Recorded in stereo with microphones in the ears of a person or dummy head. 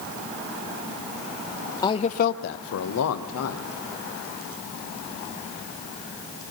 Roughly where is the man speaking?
Centre.